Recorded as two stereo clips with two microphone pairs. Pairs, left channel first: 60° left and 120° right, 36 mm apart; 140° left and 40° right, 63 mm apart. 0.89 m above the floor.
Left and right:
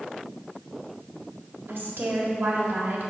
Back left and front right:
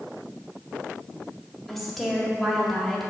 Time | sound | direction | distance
1.7 | a woman speaking | 140° right | 1.7 m